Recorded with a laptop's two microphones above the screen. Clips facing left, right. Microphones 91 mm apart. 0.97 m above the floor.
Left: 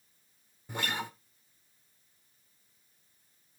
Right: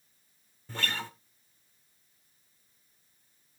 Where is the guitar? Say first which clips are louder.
Left 1 dB; 15° left (ahead or behind), 0.7 m.